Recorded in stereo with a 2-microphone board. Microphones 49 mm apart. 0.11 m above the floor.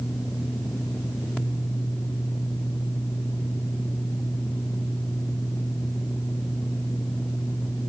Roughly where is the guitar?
I don't hear a guitar.